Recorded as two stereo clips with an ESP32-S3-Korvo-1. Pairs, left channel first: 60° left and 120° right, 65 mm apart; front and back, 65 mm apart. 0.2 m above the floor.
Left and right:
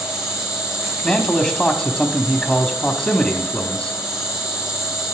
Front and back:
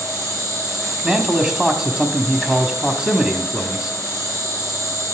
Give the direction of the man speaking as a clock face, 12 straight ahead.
8 o'clock.